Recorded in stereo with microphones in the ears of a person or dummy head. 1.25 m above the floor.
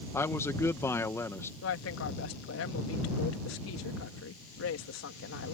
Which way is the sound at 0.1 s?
15° left (ahead or behind).